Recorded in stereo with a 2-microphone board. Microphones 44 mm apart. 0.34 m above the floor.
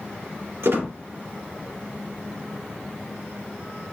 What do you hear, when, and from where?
0.6 s a squeak: 80° right, 3 m